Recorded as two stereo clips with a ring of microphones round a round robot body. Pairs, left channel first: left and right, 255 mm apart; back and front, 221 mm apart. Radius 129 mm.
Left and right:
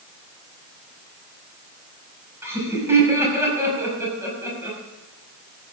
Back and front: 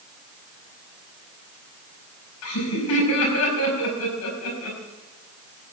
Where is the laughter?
170° right, 5.5 m.